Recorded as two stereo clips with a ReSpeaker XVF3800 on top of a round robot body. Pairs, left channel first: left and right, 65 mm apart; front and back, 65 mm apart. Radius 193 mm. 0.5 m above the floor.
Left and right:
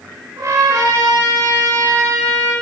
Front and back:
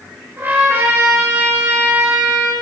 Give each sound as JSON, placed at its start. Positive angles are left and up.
{"t": 0.4, "sound": "a trumpet", "azimuth_deg": -120, "distance_m": 6.0}